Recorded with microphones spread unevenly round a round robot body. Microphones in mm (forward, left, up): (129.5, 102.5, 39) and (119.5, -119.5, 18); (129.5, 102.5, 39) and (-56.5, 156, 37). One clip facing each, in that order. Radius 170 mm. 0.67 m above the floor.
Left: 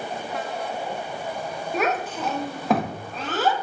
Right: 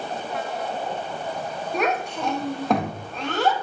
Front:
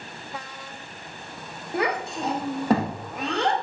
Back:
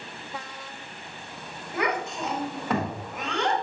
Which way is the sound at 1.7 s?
10° right.